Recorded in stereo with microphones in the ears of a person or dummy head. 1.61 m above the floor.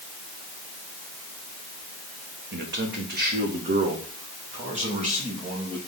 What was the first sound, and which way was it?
A man speaking, 55° right (ahead or behind).